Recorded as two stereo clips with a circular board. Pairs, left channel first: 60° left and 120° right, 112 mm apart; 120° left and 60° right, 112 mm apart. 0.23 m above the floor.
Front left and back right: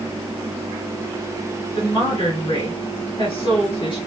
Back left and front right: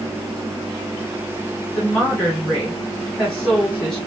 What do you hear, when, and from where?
1.8 s a woman speaking: 35° left, 3 m